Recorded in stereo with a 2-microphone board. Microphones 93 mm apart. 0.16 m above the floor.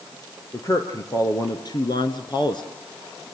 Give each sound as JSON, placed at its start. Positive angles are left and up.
{"t": 0.5, "sound": "a man speaking", "side_deg": 35, "distance_m": 2.5}